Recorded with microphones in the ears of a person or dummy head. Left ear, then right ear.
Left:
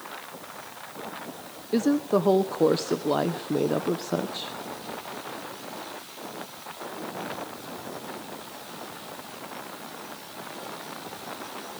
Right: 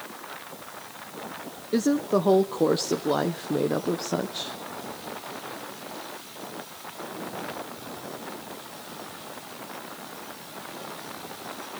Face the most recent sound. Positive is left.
turn(degrees=5)  # may be behind; listen again after turning